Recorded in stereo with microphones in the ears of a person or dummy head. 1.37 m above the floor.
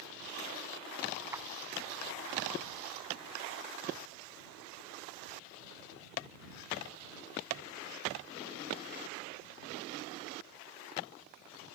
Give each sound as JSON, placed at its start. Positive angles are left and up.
{"t": 1.3, "sound": "a clap", "side_deg": -15}